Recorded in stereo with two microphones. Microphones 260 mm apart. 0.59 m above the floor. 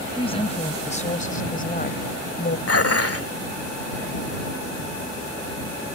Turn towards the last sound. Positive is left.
turn(degrees=65)  # may be behind; listen again after turning